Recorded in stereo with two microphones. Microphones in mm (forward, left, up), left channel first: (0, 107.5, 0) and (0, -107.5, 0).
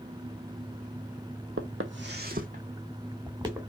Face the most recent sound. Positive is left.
turn(degrees=-15)  # may be behind; listen again after turning